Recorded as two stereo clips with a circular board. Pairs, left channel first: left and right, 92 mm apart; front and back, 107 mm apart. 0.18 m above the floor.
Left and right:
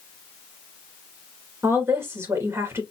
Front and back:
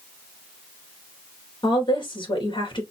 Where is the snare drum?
I don't hear a snare drum.